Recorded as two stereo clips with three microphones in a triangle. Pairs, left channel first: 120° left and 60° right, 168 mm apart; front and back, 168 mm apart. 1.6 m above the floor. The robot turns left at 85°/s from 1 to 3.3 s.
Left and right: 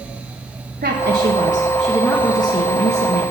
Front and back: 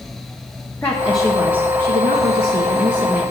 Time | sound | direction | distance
0.8 | a woman speaking | 75° right | 1.4 m